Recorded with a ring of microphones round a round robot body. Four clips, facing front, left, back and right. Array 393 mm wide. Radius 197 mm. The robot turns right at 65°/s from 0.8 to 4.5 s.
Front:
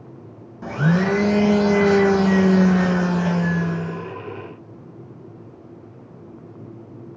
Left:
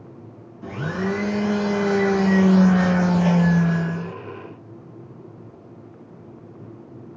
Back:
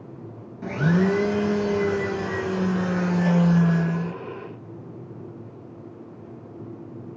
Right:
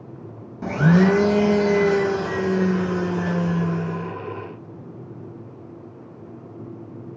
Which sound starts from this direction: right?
A blender, at 0.6 s.